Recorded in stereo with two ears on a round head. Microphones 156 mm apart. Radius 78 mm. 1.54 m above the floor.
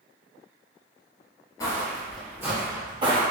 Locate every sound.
1.6 s footsteps: 20° left (ahead or behind), 1.6 m; by 3.2 s 30° right (ahead or behind), 2.5 m